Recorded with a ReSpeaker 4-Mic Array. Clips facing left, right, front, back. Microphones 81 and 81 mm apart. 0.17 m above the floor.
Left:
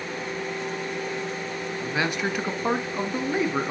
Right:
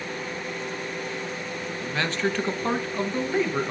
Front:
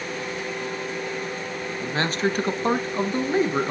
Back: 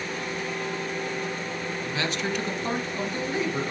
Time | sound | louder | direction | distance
1.8 | a man speaking | even, front 7 dB | 20° left | 1.5 m